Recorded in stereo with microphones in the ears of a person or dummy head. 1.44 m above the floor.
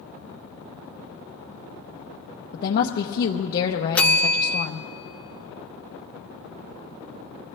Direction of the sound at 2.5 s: 50° left (ahead or behind).